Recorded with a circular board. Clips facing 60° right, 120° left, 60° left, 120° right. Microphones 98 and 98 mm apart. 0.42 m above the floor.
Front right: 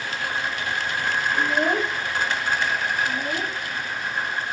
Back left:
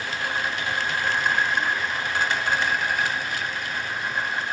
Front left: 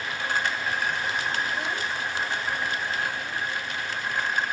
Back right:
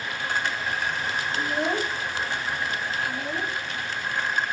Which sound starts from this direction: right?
A child speaking, at 1.4 s.